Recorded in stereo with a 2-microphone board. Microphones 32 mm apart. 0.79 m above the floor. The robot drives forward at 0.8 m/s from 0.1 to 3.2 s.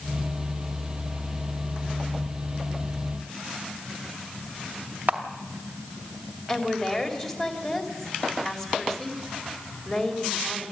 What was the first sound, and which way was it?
A camera shutter, 65° right (ahead or behind).